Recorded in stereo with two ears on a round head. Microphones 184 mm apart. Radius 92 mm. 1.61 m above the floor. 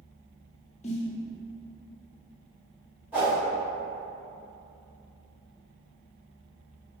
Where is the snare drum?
35° left (ahead or behind), 0.5 m.